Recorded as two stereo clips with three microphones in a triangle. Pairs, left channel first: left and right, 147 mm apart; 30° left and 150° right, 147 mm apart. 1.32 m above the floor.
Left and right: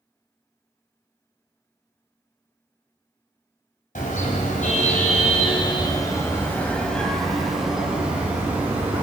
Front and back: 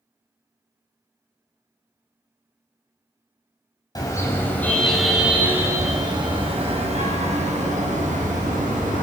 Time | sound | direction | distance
4.0 | a car horn | 90° left | 3 m